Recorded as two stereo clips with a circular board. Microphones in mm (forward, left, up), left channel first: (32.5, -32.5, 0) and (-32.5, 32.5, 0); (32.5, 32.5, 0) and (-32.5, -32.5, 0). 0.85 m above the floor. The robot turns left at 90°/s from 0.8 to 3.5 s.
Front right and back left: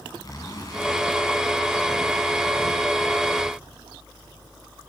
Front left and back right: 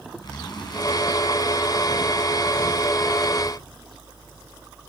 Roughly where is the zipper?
Ahead.